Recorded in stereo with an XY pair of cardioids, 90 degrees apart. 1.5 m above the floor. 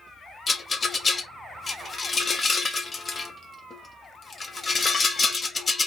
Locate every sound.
0.5 s a rattle: 35° left, 0.9 m